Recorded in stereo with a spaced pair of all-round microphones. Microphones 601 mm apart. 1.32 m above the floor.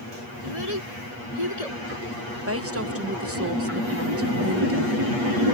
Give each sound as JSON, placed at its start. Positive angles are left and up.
{"t": 0.4, "sound": "a child speaking", "side_deg": 85}
{"t": 2.5, "sound": "a woman speaking", "side_deg": -25}